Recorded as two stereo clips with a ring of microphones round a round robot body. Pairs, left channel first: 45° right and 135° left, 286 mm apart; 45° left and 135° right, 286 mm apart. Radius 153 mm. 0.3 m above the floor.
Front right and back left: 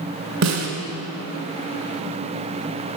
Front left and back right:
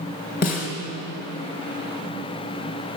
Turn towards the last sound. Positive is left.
turn(degrees=100)